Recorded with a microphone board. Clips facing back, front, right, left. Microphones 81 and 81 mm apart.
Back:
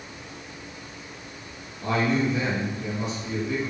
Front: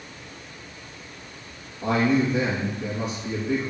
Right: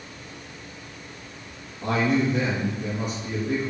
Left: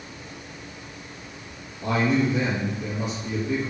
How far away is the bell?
No bell in this recording.